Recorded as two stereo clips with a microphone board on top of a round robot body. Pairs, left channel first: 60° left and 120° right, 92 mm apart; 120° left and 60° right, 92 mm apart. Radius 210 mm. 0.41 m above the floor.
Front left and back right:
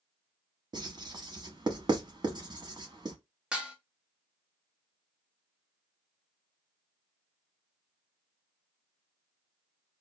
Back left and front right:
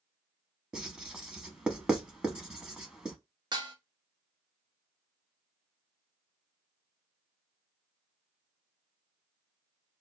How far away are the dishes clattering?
About 0.9 m.